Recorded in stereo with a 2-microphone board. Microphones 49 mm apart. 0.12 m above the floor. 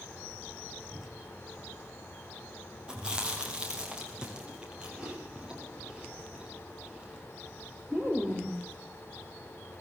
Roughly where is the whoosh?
Centre.